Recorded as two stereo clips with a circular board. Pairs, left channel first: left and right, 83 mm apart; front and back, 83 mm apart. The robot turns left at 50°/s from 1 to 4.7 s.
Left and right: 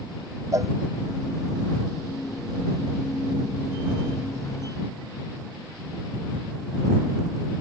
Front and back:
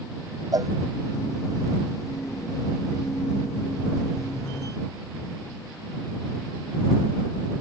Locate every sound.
0.5 s a cowbell: 140° right